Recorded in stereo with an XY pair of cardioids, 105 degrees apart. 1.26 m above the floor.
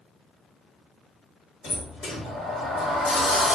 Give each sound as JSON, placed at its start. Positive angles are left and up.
{"t": 1.6, "sound": "a sliding door", "azimuth_deg": 55, "distance_m": 1.0}